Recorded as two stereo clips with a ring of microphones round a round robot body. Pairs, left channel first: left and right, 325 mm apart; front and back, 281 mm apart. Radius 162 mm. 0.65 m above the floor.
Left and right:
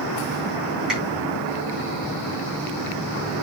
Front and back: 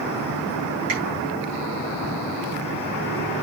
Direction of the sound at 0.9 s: Straight behind.